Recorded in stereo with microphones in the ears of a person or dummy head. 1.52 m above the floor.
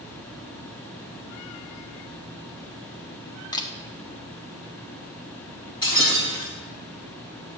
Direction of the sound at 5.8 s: 25° left (ahead or behind).